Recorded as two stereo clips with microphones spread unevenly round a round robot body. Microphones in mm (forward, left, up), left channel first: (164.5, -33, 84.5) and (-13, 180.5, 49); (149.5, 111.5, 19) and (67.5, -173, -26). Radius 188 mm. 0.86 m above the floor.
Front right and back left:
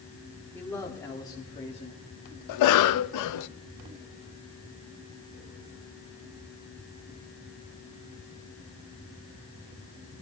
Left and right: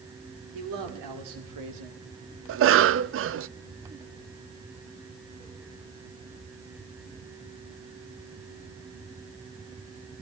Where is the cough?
65° right, 0.6 m.